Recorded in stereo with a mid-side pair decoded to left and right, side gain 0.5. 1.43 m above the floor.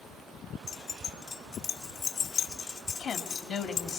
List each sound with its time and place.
0.7 s keys jangling: 65° left, 1.9 m
3.0 s a woman speaking: 55° left, 3 m